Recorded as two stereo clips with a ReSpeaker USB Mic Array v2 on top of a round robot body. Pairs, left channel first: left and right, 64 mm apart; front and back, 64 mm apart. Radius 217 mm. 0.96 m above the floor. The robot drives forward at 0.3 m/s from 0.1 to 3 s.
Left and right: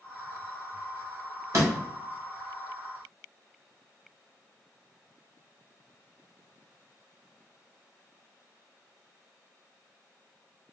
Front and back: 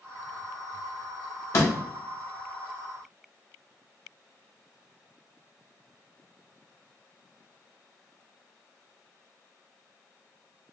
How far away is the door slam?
About 0.7 m.